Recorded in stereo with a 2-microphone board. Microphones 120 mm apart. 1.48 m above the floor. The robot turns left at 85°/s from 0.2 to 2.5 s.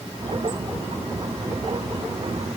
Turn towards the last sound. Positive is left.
No sound to turn to.